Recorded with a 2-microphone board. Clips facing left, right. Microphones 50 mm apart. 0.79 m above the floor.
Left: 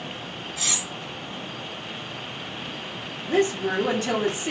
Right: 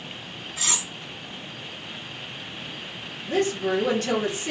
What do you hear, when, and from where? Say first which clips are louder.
0.6 s cutlery clinking: right 1 dB; 30° right (ahead or behind), 1.3 m
3.2 s a woman speaking: left 1 dB; 10° left (ahead or behind), 0.9 m